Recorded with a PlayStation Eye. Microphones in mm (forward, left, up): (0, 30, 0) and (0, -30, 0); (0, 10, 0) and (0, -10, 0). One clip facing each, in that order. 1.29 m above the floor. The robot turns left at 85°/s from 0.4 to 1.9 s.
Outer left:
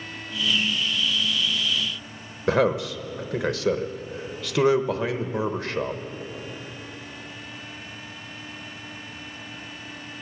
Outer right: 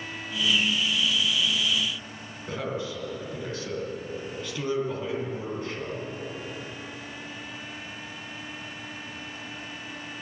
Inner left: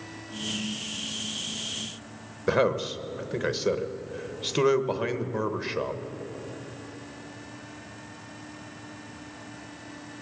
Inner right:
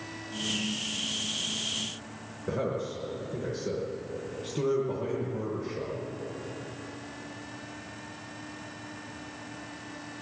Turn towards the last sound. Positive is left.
turn(degrees=80)